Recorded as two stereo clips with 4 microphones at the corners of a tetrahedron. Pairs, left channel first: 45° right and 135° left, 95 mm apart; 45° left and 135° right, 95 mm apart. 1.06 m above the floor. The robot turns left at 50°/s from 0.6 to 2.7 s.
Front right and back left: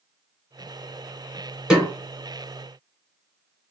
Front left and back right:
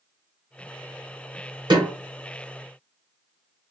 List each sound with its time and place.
1.7 s a snare drum: 145° right, 1.5 m; by 1.9 s 155° right, 1.5 m